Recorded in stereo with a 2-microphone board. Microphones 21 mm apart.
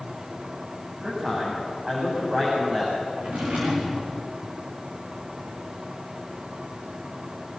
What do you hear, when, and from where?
1.0 s a man speaking: 35° right (ahead or behind), 8 m
3.2 s a drawer: 85° right, 5.5 m